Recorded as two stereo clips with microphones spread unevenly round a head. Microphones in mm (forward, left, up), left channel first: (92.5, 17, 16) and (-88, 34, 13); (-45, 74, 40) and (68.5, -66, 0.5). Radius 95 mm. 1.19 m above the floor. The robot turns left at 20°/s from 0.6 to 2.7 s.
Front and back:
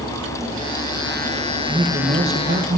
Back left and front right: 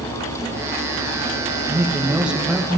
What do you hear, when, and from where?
1.7 s a man speaking: 120° right, 1.5 m; by 2.8 s 140° right, 1.5 m